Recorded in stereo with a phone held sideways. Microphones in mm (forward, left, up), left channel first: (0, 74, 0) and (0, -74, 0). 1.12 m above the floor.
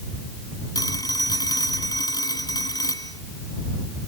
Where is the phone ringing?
25° left (ahead or behind).